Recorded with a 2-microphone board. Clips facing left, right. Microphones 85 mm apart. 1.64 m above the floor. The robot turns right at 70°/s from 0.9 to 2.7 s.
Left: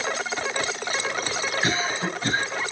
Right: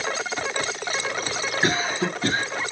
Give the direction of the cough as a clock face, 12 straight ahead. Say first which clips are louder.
Right 5 dB; 4 o'clock.